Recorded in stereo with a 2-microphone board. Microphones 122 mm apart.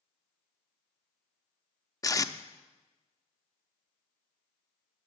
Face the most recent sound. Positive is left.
turn(degrees=25)  # may be behind; listen again after turning